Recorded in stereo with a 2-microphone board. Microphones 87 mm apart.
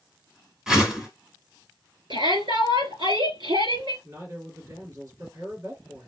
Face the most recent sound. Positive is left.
turn(degrees=-40)  # may be behind; listen again after turning